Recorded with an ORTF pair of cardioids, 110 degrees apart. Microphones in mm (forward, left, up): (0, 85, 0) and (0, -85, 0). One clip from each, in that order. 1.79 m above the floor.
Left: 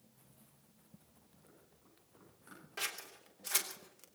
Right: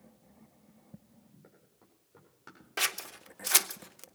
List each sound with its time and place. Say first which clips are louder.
1.4 s running footsteps: even; 55° right, 8.5 m; by 2.6 s 60° right, 8.5 m
2.8 s scissors: right 9 dB; 50° right, 0.9 m